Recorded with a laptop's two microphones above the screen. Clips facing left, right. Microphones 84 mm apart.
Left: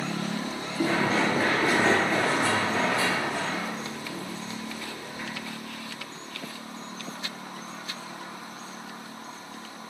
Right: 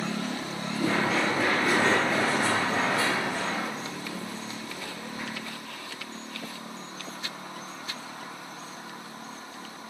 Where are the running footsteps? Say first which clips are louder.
Left 2 dB; 45° left (ahead or behind), 1.3 m; by 5.3 s 55° right (ahead or behind), 2.5 m.